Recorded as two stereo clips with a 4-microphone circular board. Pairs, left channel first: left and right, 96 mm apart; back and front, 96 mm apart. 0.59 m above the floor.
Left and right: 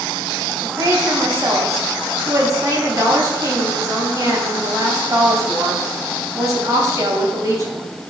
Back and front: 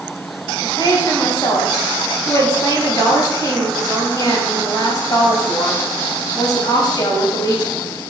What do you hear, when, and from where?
0.6 s a woman speaking: 140° right, 3.5 m